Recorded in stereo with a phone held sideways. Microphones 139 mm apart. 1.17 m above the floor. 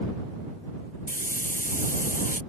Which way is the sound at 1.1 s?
80° left.